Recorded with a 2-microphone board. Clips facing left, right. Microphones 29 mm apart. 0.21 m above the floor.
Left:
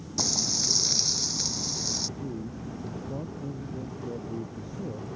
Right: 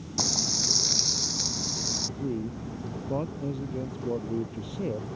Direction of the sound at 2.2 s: 75° right (ahead or behind).